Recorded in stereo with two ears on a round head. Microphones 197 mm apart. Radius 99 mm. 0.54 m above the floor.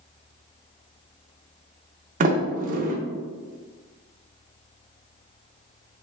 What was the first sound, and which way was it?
A sliding door, 40° right (ahead or behind).